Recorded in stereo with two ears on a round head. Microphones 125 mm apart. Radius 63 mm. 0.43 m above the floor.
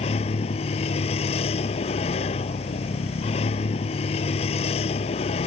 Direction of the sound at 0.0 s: 45° left (ahead or behind).